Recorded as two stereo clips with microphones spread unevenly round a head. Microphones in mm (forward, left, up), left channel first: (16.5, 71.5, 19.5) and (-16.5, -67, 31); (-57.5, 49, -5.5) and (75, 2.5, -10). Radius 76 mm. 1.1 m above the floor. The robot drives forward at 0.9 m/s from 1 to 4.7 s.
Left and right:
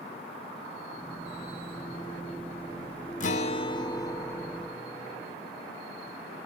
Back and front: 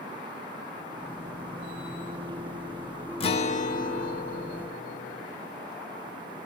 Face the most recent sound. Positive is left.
turn(degrees=155)